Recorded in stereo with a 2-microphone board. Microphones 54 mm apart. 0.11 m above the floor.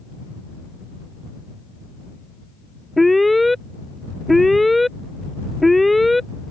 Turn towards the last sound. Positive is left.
turn(degrees=0)  # may be behind; listen again after turning